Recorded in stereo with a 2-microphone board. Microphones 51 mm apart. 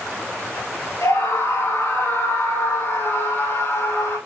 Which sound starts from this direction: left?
A scream, at 1.0 s.